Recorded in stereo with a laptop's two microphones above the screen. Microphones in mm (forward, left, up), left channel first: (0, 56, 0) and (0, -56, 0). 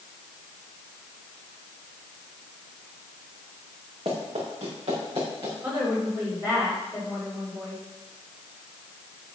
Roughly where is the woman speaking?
Right.